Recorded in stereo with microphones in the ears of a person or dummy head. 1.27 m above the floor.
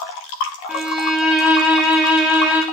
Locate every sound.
0.7 s a violin: 5° right (ahead or behind), 0.7 m